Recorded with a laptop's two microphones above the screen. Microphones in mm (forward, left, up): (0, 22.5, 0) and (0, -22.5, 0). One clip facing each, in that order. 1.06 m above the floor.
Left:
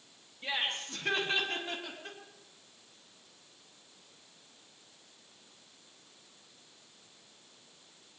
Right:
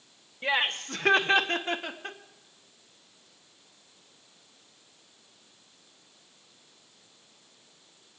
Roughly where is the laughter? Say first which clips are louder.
Right 7 dB; right.